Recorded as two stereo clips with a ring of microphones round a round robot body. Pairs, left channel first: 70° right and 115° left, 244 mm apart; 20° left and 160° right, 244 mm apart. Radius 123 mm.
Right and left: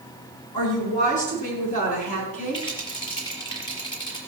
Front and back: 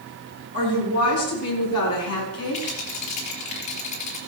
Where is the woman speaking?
5° right, 5.5 m.